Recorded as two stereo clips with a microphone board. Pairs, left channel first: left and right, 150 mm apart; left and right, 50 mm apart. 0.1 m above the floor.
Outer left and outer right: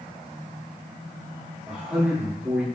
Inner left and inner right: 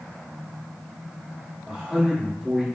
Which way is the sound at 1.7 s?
10° right (ahead or behind).